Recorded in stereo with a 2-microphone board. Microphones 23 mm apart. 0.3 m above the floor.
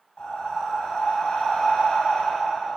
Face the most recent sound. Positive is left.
turn(degrees=55)  # may be behind; listen again after turning